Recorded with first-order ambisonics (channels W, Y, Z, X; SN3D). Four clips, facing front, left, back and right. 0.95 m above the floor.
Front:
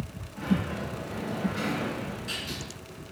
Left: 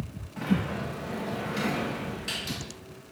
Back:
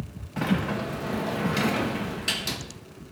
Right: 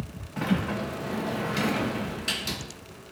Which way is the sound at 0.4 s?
155° right.